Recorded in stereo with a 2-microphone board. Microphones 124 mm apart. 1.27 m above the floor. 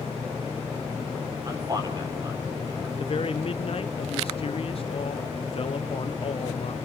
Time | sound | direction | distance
1.4 | a man speaking | 35° right (ahead or behind) | 4 m
3.0 | a man speaking | 50° left (ahead or behind) | 0.8 m